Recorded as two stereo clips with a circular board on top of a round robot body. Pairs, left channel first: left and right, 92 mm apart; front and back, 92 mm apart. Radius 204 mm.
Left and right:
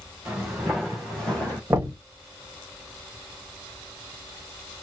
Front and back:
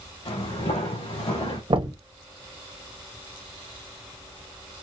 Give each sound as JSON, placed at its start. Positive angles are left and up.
{"t": 0.2, "sound": "footsteps", "azimuth_deg": -10, "distance_m": 2.5}
{"t": 1.7, "sound": "knocking", "azimuth_deg": -155, "distance_m": 1.6}